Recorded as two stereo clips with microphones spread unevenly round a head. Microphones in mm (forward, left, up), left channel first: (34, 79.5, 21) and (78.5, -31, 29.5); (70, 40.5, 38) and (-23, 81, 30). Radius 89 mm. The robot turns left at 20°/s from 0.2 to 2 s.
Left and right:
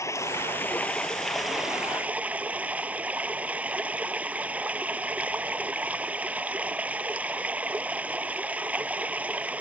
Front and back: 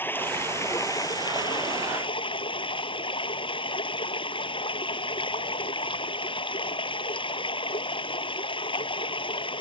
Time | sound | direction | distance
0.0 | running water | 45° left | ?